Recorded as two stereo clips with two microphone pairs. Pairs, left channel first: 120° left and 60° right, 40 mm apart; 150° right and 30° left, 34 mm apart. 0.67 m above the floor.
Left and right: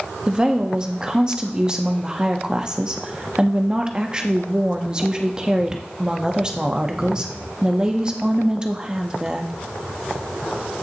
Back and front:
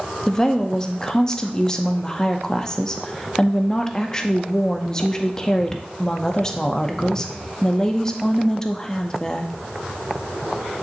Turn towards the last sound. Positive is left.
turn(degrees=-105)